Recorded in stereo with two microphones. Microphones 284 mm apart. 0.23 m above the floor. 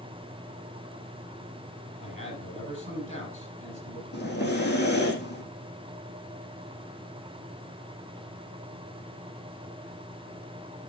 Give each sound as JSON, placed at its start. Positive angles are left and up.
{"t": 2.0, "sound": "a man speaking", "side_deg": -40, "distance_m": 7.5}
{"t": 4.1, "sound": "breathing", "side_deg": 35, "distance_m": 4.5}